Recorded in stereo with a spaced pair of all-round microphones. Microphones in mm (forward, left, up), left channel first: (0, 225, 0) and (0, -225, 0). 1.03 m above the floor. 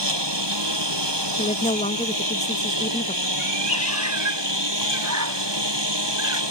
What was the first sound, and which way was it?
A lawn mower, 75° right (ahead or behind).